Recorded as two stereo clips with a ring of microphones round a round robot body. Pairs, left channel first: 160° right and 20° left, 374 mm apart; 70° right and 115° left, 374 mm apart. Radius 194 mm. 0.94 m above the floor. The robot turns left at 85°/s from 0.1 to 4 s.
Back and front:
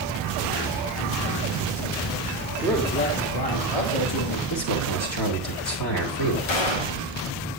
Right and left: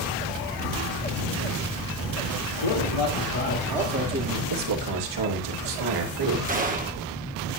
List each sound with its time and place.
2.6 s a man speaking: 60° right, 3 m; by 4.4 s straight behind, 3 m
4.5 s a man speaking: 150° left, 3 m
6.5 s a gunshot: straight behind, 1.3 m